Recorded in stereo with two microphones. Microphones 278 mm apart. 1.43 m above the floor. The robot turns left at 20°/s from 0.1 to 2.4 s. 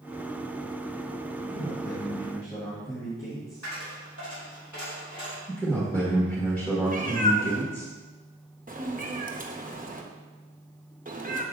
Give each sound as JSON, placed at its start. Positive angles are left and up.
{"t": 1.4, "sound": "a man speaking", "side_deg": 40, "distance_m": 1.8}
{"t": 3.6, "sound": "a dropped coin", "side_deg": 80, "distance_m": 3.5}
{"t": 5.5, "sound": "a man speaking", "side_deg": 5, "distance_m": 1.8}
{"t": 6.9, "sound": "a cat meowing", "side_deg": -30, "distance_m": 0.8}